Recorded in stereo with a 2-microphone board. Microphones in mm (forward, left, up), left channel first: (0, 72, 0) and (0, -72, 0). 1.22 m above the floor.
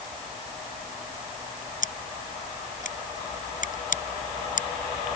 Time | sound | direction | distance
1.8 | scissors | 65° left (ahead or behind) | ?